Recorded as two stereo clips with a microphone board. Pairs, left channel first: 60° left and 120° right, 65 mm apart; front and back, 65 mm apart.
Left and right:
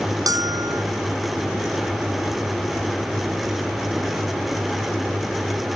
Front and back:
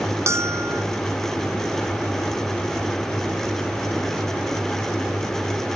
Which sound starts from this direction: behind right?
A bell, at 0.3 s.